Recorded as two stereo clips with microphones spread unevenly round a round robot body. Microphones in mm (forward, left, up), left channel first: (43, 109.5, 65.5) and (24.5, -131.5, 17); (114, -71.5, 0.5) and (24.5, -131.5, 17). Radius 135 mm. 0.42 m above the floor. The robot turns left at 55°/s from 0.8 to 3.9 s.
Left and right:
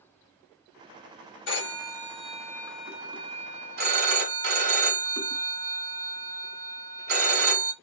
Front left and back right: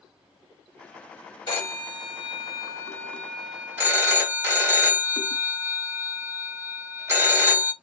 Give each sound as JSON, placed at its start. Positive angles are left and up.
{"t": 1.5, "sound": "a phone ringing", "azimuth_deg": 55, "distance_m": 1.3}